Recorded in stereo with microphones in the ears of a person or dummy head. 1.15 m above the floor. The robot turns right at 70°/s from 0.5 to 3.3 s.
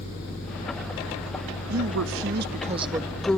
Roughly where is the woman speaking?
Right.